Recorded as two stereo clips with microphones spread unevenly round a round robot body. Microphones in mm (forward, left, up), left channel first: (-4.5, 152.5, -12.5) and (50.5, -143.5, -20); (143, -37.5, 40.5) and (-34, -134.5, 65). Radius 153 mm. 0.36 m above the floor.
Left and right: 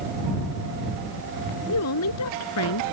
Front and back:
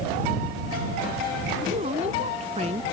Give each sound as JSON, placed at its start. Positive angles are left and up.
{"t": 1.7, "sound": "a woman speaking", "azimuth_deg": 140}